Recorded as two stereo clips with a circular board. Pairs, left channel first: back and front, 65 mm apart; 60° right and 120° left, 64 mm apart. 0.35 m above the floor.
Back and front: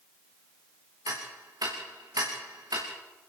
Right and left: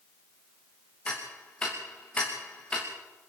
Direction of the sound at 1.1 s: 15° left.